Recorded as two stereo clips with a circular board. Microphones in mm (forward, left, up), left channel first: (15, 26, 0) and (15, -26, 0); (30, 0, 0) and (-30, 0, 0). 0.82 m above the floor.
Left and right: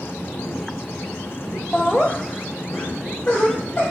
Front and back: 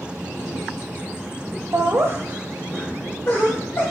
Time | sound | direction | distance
1.7 | laughter | 175° left | 0.7 m